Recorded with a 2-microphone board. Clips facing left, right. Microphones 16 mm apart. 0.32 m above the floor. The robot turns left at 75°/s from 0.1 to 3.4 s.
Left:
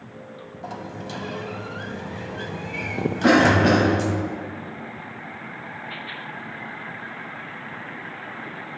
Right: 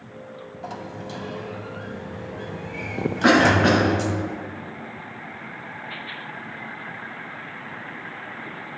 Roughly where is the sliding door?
Behind.